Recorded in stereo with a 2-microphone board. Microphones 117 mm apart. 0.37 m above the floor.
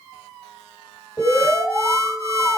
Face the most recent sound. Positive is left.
turn(degrees=-30)  # may be behind; listen again after turning